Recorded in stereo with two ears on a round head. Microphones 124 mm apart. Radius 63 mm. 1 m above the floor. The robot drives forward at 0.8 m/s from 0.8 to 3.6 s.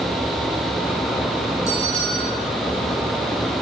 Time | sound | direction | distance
1.7 | a bell | 50° right (ahead or behind) | 6.5 m